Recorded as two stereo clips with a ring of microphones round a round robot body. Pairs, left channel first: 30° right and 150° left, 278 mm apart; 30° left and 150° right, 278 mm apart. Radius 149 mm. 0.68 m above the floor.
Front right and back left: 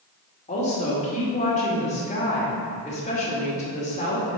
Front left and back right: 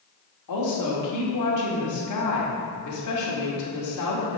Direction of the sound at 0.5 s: 35° left.